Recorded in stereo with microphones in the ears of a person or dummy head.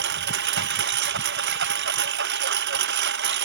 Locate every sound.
0.0 s a lawn mower: 65° right (ahead or behind)